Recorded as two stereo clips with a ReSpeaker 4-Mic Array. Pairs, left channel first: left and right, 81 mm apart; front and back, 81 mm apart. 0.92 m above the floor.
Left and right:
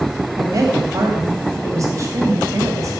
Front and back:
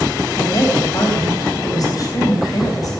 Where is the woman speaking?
40° right, 4 m.